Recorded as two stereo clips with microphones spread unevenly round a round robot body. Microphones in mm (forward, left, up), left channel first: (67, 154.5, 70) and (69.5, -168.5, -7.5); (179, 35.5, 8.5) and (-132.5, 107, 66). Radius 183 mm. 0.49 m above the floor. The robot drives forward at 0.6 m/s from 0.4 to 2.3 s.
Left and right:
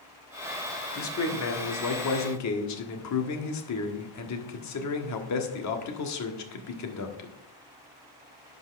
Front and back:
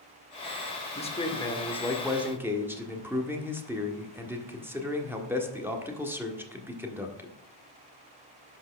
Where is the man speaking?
40° left, 1.9 m; by 7.4 s 75° left, 1.6 m.